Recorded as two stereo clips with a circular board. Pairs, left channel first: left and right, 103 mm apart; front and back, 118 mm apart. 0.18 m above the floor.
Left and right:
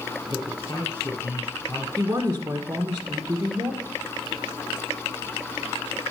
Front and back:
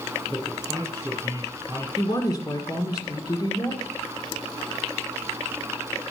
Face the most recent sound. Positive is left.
turn(degrees=-35)